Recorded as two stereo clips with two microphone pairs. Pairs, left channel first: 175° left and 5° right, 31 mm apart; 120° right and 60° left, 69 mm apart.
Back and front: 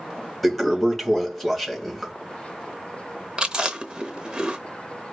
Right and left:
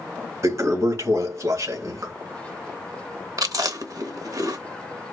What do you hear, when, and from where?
0.4 s a toilet flushing: 85° left, 2.5 m
3.4 s chewing: 55° left, 0.7 m